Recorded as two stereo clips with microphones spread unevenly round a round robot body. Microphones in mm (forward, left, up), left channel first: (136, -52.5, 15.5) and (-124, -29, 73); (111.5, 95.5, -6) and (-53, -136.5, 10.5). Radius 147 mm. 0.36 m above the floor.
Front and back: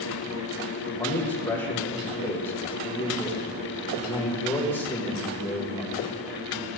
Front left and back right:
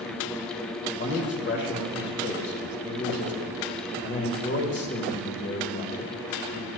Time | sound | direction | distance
0.9 | a man speaking | 55° left | 1.0 m